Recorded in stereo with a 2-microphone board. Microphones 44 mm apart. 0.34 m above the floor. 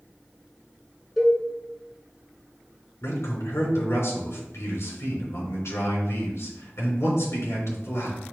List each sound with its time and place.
1.2 s a cowbell: centre (ahead or behind), 1.8 m
3.0 s a man speaking: 75° left (ahead or behind), 3 m